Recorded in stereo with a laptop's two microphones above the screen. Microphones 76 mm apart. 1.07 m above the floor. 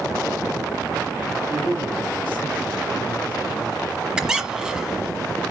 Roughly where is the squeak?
Centre.